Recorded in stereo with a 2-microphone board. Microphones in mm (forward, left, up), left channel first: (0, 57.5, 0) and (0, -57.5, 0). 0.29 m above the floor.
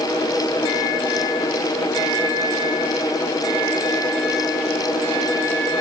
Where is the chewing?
I don't hear chewing.